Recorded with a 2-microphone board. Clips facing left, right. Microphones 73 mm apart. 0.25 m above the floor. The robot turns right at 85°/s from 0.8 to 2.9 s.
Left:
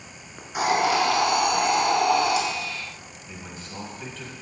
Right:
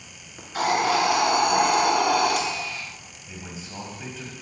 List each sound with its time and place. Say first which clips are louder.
0.4 s a hiss: left 1 dB; 165° left, 1.4 m; by 2.4 s 60° right, 1.4 m
3.2 s a man speaking: right 2 dB; 10° right (ahead or behind), 1.7 m